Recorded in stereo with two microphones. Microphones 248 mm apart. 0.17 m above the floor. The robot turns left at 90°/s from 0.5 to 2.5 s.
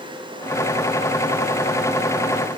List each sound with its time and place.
Only background noise.